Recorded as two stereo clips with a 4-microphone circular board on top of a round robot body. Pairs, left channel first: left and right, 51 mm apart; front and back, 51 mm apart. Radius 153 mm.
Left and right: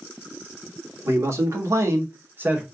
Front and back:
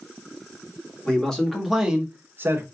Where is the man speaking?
70° right, 1.8 m; by 2.6 s 150° right, 1.2 m.